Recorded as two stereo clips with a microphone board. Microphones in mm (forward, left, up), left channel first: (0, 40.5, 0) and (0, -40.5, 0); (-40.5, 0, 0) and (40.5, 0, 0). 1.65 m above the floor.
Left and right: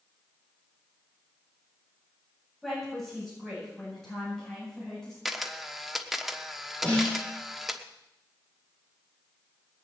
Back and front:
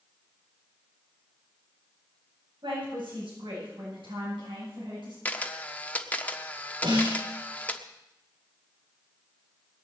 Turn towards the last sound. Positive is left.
turn(degrees=15)